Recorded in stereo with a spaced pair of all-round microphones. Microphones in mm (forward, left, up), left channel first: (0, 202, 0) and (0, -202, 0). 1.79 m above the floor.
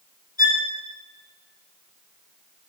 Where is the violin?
55° left (ahead or behind), 3 m.